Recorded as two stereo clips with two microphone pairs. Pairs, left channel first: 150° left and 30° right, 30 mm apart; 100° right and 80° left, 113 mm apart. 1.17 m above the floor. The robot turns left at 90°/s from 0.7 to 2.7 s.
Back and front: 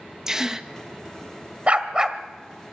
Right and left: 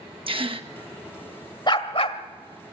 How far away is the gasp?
About 1.2 m.